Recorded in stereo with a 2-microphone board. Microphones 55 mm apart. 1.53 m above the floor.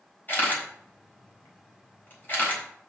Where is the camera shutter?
35° left (ahead or behind), 4 m.